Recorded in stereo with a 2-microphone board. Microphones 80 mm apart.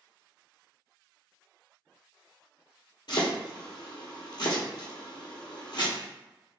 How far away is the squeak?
No squeak in this recording.